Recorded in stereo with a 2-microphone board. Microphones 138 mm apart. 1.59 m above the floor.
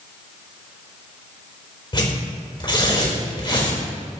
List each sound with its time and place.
1.9 s tearing paper: 35° left (ahead or behind), 4 m